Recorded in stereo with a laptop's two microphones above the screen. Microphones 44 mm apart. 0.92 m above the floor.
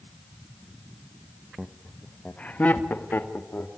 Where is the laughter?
10° right (ahead or behind), 1.0 m; by 3.7 s 55° left (ahead or behind), 2.5 m.